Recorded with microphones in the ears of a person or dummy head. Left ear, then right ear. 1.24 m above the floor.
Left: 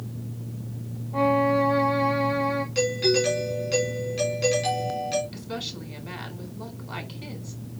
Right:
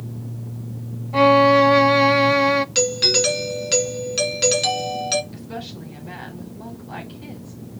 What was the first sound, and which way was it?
A violin, 80° right.